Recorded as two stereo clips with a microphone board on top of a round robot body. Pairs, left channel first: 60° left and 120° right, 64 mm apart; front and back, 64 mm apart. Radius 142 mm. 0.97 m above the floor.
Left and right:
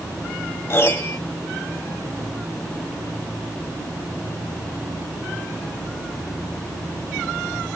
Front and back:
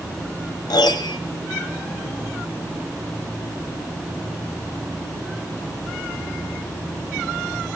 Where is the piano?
10° left, 1.7 m.